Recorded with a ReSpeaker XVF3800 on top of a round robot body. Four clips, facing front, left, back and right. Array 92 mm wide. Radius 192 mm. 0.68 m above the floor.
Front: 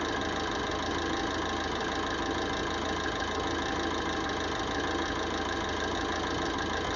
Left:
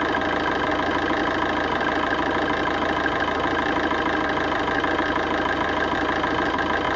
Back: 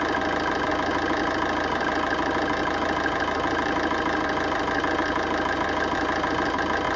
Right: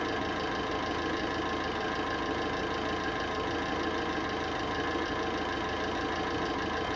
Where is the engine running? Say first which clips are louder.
Left 10 dB, back 7 dB; 120° left, 1.0 m.